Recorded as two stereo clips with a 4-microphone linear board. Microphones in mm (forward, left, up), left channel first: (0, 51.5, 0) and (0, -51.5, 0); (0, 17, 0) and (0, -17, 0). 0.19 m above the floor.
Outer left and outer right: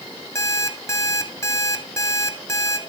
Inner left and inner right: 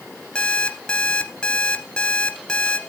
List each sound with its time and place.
0.3 s an alarm clock: 30° left (ahead or behind), 1.7 m